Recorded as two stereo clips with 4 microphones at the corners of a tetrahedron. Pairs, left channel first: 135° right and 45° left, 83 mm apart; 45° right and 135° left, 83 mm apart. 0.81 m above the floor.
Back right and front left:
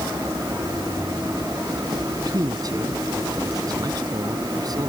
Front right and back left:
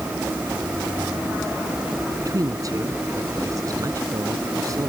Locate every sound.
2.2 s a man speaking: 85° left